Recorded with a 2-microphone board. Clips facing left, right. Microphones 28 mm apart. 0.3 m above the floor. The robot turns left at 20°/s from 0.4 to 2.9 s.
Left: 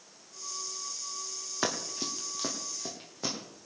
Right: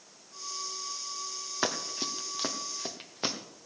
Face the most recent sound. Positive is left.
turn(degrees=-45)  # may be behind; listen again after turning